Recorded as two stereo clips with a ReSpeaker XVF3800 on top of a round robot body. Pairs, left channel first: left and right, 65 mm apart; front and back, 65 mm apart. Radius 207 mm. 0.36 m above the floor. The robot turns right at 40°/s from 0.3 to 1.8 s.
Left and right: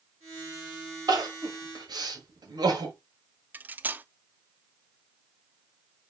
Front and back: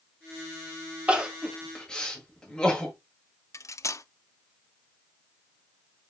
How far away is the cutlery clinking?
About 0.6 m.